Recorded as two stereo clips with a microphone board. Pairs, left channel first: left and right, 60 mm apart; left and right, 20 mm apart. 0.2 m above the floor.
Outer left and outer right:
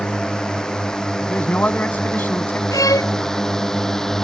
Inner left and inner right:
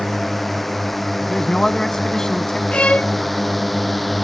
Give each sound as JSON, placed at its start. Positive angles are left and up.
{"t": 0.0, "sound": "a drone", "side_deg": 10}
{"t": 1.2, "sound": "a man speaking", "side_deg": 30}
{"t": 2.7, "sound": "a violin", "side_deg": 75}